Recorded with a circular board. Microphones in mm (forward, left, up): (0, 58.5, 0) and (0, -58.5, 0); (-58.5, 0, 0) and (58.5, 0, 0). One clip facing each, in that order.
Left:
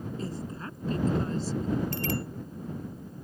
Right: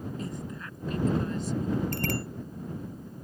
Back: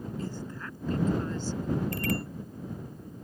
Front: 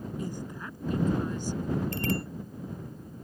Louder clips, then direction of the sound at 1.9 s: Even, even; 60° right.